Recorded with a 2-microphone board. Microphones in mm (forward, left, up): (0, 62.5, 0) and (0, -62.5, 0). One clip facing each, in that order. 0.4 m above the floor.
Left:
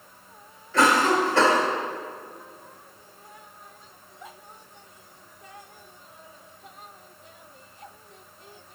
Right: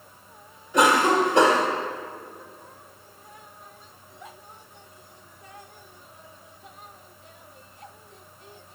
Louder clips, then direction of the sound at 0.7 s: Right 1 dB; 20° right (ahead or behind).